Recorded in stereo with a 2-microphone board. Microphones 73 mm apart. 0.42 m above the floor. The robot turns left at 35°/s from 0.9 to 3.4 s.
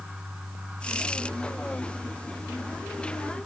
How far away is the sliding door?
I don't hear a sliding door.